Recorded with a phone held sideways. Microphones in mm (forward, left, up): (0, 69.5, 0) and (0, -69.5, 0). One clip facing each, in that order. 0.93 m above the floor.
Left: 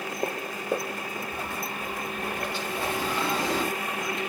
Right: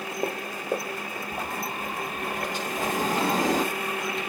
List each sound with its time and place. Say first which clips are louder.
1.3 s a sliding door: right 2 dB; 40° right (ahead or behind), 1.2 m